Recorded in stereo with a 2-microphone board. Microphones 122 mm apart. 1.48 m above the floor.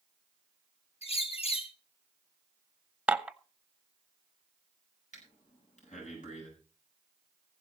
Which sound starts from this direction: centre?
Dishes clattering, at 3.1 s.